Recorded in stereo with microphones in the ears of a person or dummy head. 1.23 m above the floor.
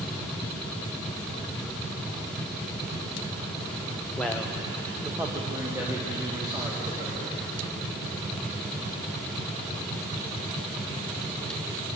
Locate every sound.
4.2 s a man speaking: 5° left (ahead or behind), 0.8 m; by 7.4 s 20° right (ahead or behind), 3.5 m